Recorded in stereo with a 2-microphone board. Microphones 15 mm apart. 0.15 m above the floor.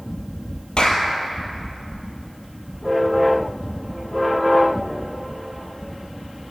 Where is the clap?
55° left (ahead or behind), 3.5 m.